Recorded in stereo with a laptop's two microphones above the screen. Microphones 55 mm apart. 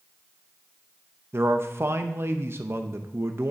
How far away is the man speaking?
About 0.8 m.